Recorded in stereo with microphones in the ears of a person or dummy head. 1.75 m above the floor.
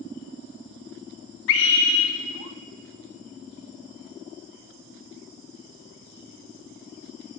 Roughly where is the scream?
Left.